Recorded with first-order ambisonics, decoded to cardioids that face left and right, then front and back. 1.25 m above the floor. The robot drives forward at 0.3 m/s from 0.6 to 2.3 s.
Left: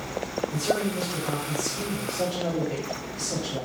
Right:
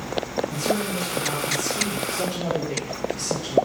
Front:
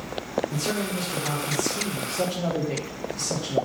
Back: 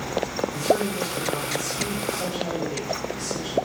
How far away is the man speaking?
About 1.4 m.